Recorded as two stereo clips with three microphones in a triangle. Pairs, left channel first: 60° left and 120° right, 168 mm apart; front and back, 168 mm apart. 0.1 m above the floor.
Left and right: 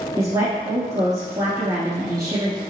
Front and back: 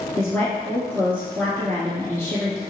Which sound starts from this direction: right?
A woman speaking, at 0.2 s.